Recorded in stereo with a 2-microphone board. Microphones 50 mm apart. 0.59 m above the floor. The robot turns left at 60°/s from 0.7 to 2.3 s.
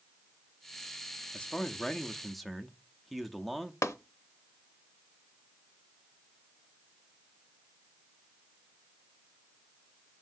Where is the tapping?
85° left, 0.7 m.